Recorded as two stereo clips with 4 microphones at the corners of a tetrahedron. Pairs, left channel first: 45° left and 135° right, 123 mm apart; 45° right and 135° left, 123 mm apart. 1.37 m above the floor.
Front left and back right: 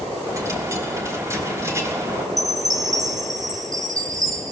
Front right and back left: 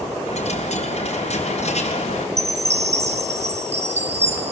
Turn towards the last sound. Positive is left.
turn(degrees=165)